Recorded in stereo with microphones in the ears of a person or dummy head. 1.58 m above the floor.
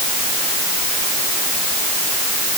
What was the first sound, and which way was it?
Only background noise.